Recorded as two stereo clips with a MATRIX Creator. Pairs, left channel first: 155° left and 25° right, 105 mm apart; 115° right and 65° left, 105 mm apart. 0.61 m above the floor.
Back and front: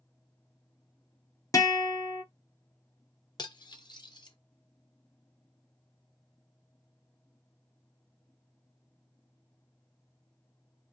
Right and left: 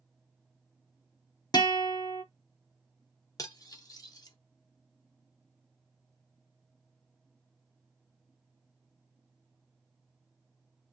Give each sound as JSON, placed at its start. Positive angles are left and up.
{"t": 1.5, "sound": "a guitar", "azimuth_deg": -150, "distance_m": 0.6}
{"t": 3.4, "sound": "cutlery clinking", "azimuth_deg": -160, "distance_m": 0.6}